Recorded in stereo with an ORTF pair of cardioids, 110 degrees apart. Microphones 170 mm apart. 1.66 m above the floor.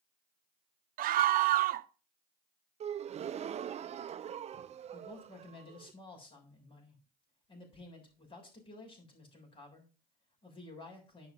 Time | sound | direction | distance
1.0 | a scream | 70° right | 0.9 m
2.8 | a gasp | 45° right | 0.7 m
4.9 | a man speaking | 35° left | 7 m